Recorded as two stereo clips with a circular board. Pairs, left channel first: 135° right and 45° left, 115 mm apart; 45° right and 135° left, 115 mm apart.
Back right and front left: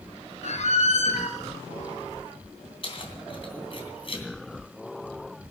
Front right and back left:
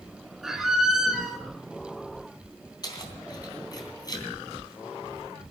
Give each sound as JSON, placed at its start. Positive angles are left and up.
{"t": 0.4, "sound": "a squeak", "azimuth_deg": -135, "distance_m": 2.5}
{"t": 2.8, "sound": "keys jangling", "azimuth_deg": -100, "distance_m": 3.0}